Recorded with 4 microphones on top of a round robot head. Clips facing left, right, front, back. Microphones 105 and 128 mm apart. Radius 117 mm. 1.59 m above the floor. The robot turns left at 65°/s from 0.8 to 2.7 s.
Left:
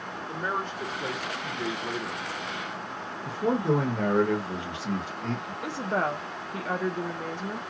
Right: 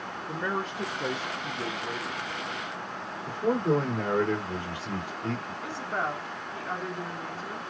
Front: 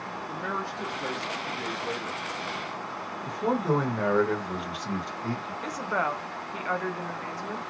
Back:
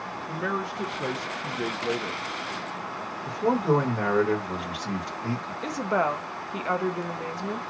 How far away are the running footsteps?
No running footsteps in this recording.